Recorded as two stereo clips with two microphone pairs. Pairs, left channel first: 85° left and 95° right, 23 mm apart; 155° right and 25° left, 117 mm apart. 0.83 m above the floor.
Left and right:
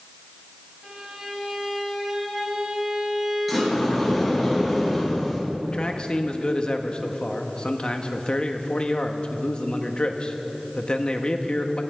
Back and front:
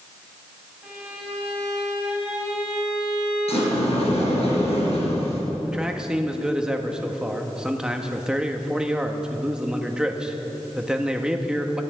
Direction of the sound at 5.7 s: 105° left.